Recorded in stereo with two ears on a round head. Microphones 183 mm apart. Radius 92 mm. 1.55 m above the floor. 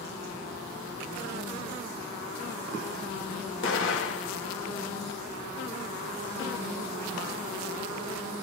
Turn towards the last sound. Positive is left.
turn(degrees=65)  # may be behind; listen again after turning